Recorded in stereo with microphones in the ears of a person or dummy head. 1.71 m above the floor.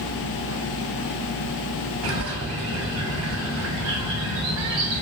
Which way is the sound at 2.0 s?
70° right (ahead or behind).